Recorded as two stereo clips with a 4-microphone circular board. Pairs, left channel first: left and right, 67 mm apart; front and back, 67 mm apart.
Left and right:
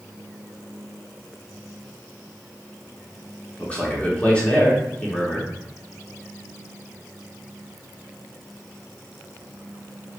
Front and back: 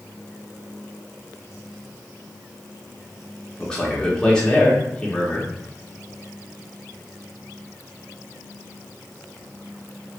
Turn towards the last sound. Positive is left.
turn(degrees=60)